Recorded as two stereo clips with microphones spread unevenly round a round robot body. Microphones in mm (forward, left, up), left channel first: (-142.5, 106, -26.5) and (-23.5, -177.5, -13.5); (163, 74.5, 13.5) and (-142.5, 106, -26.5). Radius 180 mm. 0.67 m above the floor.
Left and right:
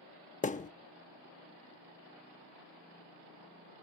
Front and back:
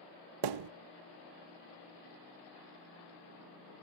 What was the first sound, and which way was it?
A thud, straight behind.